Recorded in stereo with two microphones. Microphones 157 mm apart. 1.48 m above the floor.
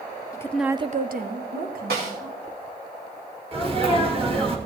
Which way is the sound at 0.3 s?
20° left (ahead or behind).